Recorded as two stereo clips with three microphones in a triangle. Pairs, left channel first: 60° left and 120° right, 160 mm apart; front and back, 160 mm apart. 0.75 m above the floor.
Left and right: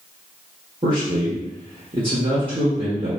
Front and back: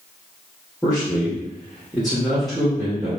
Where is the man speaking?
90° right, 1.0 m.